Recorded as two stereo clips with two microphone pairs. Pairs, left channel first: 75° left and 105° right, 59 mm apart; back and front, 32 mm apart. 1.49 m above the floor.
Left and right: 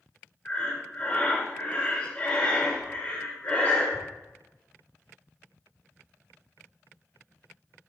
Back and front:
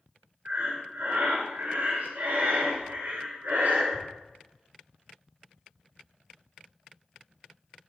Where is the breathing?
10° left, 2.5 m.